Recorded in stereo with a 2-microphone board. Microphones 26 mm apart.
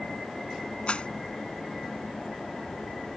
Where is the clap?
45° left (ahead or behind).